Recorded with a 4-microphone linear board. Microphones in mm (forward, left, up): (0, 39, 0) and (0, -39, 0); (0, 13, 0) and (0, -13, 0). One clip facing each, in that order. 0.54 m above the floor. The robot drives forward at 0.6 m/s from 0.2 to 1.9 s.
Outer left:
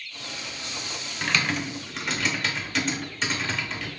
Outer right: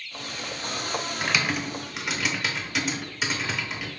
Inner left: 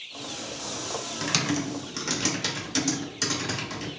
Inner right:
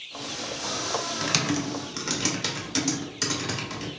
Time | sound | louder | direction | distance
1.2 | typing on a keyboard | outer left 2 dB, inner left 1 dB | 10° right (ahead or behind) | 0.6 m